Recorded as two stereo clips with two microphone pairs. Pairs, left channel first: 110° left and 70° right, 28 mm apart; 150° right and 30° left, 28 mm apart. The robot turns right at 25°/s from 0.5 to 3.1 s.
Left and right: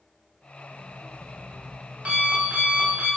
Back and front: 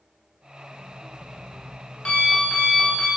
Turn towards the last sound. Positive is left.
turn(degrees=-85)